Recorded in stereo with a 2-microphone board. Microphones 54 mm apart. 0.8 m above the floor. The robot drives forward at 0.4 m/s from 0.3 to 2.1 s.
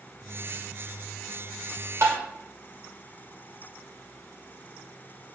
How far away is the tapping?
About 2.5 m.